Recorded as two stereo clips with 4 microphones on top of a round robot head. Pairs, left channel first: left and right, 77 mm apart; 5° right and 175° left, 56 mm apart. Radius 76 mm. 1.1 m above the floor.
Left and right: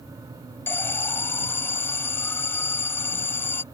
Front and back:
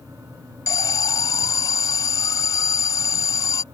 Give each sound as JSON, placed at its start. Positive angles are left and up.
{"t": 0.7, "sound": "an alarm", "azimuth_deg": 20}